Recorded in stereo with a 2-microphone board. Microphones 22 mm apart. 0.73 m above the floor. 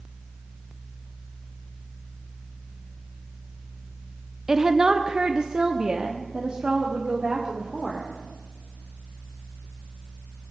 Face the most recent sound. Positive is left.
turn(degrees=-35)  # may be behind; listen again after turning